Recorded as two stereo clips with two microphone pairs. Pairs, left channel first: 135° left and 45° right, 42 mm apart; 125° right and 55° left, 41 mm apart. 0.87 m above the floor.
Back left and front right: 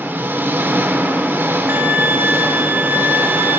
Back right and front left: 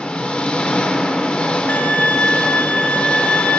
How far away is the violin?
About 0.6 m.